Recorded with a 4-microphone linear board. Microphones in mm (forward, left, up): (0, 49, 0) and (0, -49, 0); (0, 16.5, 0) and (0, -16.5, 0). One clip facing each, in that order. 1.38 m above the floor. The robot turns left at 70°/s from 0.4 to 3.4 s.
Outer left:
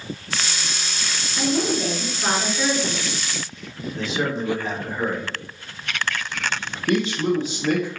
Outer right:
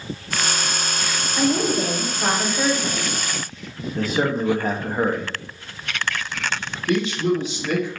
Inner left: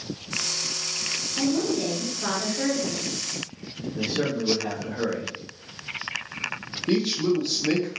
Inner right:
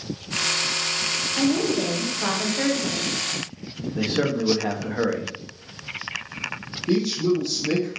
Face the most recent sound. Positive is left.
turn(degrees=30)  # may be behind; listen again after turning